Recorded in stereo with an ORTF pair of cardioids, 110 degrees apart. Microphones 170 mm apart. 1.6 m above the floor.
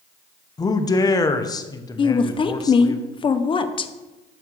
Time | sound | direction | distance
0.6 | a man speaking | 20° left | 0.9 m
2.0 | a woman speaking | 30° left | 0.8 m